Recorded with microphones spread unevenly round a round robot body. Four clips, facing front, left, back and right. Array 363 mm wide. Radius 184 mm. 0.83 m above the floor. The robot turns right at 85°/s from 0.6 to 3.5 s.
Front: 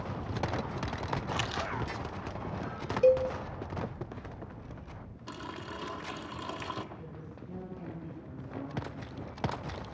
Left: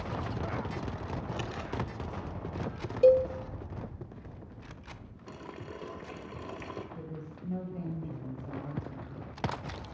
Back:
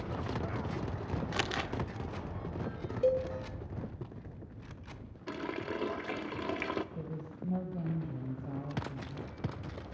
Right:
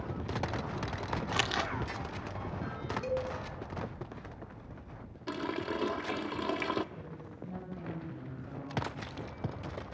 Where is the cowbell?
55° left, 1.7 m; by 3.3 s 75° left, 1.7 m.